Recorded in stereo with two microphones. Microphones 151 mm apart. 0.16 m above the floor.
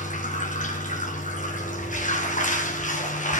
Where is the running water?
60° left (ahead or behind), 4.5 m.